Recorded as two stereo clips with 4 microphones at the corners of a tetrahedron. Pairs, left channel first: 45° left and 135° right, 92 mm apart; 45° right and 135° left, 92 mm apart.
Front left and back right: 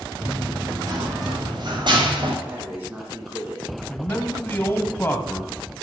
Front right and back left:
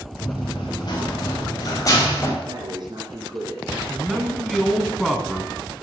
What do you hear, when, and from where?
0.2 s running footsteps: 80° right, 4.5 m; by 2.4 s 105° right, 3 m
2.5 s breathing: 155° left, 3 m
3.9 s a man speaking: 40° left, 1.2 m